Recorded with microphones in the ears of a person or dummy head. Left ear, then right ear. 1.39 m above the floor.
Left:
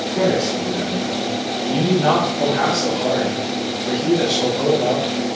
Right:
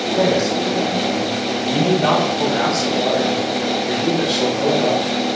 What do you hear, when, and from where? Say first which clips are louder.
0.1 s a man speaking: right 1 dB; 35° right (ahead or behind), 3.5 m; by 5.1 s 10° right (ahead or behind), 8 m